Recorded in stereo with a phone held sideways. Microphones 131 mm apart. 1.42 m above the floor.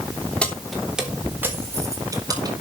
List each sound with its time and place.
0.4 s keys jangling: 10° left (ahead or behind), 3 m; by 2.5 s 30° right (ahead or behind), 4.5 m